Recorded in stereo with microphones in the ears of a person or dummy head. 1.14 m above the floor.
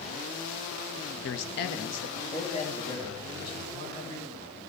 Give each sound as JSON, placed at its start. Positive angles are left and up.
{"t": 1.2, "sound": "a man speaking", "side_deg": 65, "distance_m": 1.3}